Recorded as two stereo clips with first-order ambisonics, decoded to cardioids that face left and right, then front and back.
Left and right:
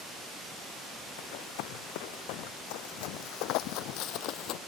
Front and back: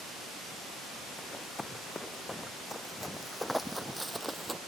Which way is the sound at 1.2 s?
80° left.